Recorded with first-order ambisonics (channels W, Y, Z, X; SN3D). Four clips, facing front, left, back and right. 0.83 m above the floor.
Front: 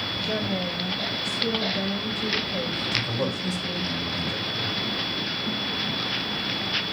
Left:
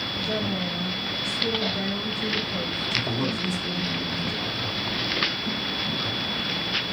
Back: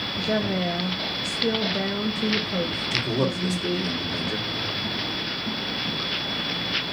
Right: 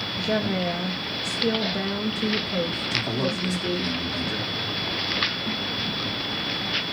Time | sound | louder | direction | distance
0.2 | a woman speaking | right 4 dB, back 5 dB | 140° right | 0.5 m
2.9 | a man speaking | even, back 3 dB | 170° right | 1.9 m